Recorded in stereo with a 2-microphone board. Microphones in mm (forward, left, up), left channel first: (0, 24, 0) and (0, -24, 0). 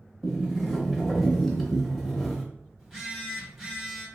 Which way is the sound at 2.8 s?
Centre (ahead or behind).